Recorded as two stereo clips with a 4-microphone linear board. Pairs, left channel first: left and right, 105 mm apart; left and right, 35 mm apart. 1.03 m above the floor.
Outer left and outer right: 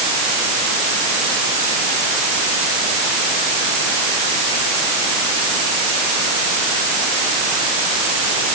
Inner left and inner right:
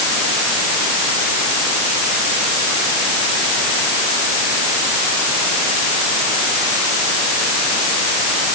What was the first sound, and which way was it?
Only background noise.